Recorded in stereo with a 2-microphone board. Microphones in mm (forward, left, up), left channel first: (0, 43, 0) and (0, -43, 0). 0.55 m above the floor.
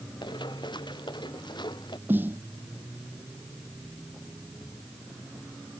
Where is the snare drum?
25° right (ahead or behind).